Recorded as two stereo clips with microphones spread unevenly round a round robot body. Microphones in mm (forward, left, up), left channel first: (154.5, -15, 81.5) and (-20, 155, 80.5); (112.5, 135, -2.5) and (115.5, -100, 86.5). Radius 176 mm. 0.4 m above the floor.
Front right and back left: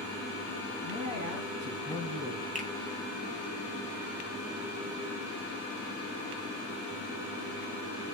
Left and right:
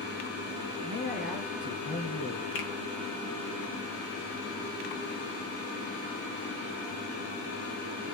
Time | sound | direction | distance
0.8 | a man speaking | 135° left | 4 m
2.5 | a finger snap | 75° left | 2.5 m